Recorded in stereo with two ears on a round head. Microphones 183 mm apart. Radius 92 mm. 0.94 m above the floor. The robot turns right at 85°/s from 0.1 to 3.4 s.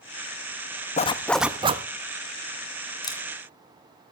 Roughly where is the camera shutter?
Left.